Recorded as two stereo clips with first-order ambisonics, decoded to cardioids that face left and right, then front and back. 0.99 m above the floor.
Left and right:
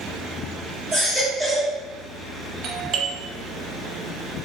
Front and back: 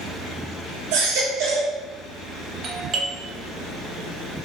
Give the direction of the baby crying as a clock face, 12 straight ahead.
6 o'clock.